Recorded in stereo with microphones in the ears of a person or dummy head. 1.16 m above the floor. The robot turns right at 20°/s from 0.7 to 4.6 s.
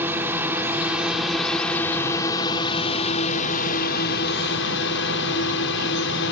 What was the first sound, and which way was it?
A drone, 10° right (ahead or behind).